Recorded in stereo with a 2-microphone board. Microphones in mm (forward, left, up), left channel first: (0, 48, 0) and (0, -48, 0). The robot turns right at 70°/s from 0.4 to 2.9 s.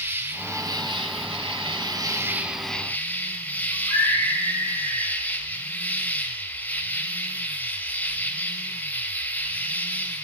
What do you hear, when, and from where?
0.0 s an insect: 155° right, 0.9 m; by 10.2 s 20° left, 0.9 m
3.7 s a scream: 30° left (ahead or behind), 7 m